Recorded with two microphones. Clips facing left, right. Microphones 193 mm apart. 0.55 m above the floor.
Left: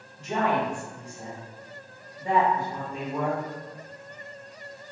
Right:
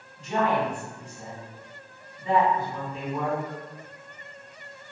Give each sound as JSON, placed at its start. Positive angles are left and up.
{"t": 0.2, "sound": "a woman speaking", "side_deg": 65, "distance_m": 1.8}